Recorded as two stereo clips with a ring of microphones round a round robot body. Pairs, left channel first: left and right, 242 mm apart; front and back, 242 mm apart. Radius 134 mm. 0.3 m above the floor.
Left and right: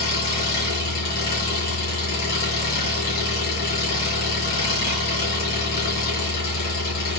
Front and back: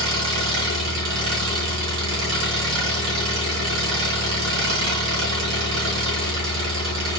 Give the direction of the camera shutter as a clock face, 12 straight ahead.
No camera shutter in this recording.